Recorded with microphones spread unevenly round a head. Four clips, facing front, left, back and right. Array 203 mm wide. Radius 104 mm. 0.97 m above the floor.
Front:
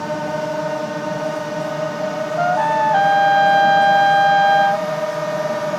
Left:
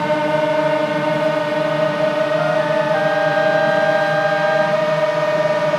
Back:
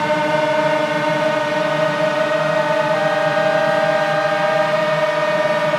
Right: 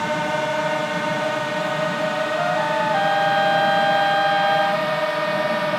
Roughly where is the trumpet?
Ahead.